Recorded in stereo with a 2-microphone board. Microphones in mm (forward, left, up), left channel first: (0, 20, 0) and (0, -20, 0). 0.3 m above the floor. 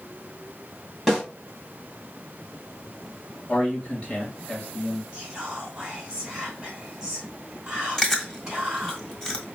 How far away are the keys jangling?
I don't hear keys jangling.